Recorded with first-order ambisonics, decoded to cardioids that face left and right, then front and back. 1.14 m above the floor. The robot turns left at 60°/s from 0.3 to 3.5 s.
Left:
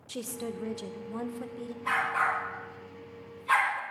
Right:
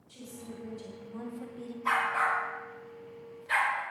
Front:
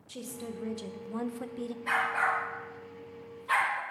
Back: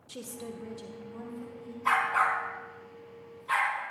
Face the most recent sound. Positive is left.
turn(degrees=90)